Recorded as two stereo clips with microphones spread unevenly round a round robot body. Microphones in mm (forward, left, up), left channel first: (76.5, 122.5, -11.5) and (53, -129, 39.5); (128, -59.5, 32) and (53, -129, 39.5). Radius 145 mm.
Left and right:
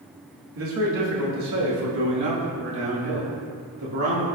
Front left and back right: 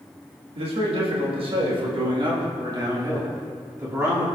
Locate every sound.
0.6 s a man speaking: 140° right, 1.8 m; by 4.3 s 70° right, 3 m